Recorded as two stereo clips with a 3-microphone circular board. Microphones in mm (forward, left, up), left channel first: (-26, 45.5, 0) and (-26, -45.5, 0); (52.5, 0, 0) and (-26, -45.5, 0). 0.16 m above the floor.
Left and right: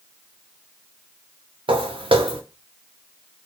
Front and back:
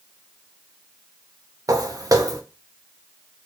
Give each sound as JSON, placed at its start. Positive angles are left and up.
{"t": 1.7, "sound": "footsteps", "azimuth_deg": -100, "distance_m": 0.8}